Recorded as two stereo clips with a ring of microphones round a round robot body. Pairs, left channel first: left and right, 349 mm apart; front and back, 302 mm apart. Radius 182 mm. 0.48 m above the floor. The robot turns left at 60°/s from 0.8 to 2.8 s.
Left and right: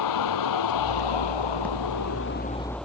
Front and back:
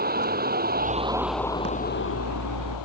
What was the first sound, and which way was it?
A vehicle, 120° left.